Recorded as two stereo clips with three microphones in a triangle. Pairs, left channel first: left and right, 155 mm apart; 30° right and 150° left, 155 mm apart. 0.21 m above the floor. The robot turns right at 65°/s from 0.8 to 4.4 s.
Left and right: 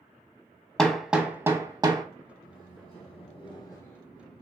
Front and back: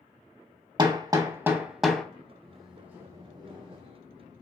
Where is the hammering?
170° left, 0.6 m; by 2.0 s 110° right, 0.6 m.